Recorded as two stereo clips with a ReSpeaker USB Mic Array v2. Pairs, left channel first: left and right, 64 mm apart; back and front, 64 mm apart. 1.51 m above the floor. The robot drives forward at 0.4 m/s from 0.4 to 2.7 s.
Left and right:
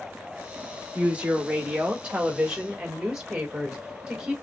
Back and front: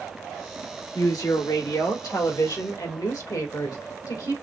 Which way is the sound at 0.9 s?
160° right.